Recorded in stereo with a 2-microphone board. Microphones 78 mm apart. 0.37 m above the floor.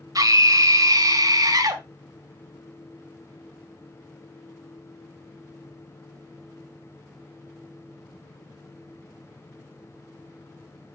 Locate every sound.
0.1 s a scream: 50° right (ahead or behind), 1.7 m